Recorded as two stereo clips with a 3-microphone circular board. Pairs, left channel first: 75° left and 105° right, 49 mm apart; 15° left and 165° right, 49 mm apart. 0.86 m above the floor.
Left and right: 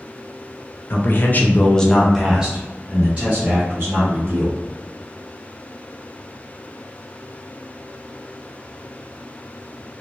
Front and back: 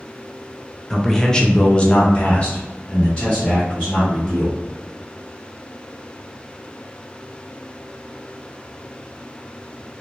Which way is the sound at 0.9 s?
100° left.